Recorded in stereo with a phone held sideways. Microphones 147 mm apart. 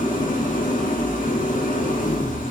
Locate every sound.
0.0 s an engine running: 65° left (ahead or behind), 1.6 m